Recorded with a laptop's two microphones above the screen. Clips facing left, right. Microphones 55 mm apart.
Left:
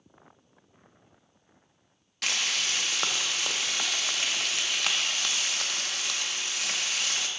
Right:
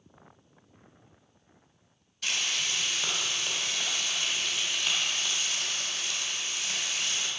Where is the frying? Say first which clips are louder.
Left 2 dB; 75° left (ahead or behind), 0.8 m.